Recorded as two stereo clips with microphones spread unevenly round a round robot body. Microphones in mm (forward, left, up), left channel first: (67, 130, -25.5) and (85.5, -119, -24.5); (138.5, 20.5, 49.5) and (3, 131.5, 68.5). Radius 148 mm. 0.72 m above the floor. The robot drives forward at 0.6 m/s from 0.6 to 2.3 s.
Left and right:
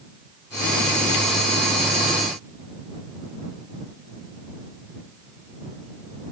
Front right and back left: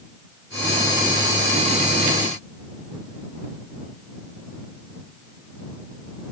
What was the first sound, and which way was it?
Only background noise.